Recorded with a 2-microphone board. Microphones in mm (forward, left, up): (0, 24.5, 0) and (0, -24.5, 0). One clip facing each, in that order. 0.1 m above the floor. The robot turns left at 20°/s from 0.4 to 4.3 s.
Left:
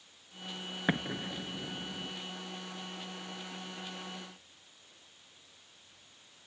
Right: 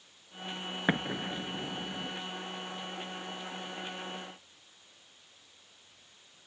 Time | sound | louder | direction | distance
0.9 | an explosion | right 2 dB | 15° right (ahead or behind) | 0.5 m